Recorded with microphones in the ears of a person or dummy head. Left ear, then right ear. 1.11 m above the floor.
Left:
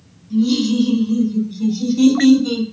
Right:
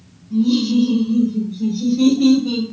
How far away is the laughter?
About 1.2 m.